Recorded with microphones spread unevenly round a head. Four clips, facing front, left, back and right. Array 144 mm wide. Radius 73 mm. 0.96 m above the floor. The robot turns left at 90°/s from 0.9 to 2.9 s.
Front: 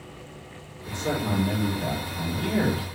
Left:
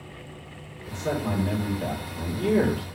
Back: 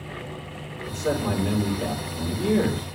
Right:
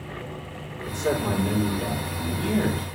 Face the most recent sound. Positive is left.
turn(degrees=95)